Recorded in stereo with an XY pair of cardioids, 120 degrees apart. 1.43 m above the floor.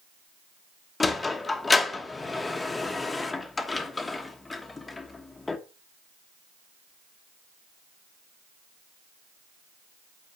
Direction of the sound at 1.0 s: 20° left.